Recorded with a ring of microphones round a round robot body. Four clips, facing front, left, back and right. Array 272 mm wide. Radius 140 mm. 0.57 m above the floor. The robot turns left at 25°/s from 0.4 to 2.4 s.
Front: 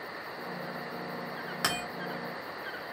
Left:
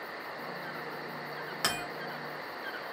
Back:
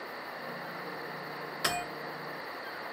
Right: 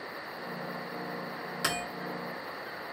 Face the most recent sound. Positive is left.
turn(degrees=5)